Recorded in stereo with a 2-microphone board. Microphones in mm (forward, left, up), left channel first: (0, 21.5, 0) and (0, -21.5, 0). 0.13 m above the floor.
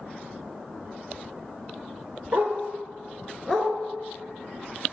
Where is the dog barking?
60° right (ahead or behind), 0.8 m; by 4.9 s 45° left (ahead or behind), 1.5 m.